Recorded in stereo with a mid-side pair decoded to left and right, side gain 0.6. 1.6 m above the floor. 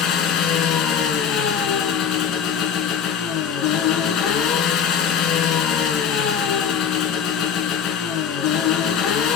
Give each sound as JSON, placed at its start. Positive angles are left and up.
{"t": 0.0, "sound": "an engine running", "azimuth_deg": 65, "distance_m": 1.8}